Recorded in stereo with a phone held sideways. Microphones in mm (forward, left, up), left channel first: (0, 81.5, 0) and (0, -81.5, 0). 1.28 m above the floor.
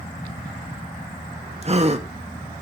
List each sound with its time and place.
1.6 s a gasp: 40° right (ahead or behind), 1.2 m